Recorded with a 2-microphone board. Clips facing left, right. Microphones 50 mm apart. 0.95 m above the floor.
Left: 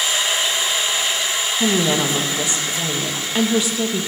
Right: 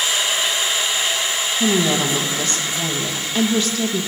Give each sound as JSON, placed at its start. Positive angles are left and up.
{"t": 1.6, "sound": "a woman speaking", "side_deg": 15, "distance_m": 1.1}